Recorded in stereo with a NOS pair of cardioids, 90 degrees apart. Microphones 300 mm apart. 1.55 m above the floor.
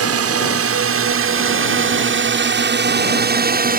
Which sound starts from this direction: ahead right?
A drone, at 0.0 s.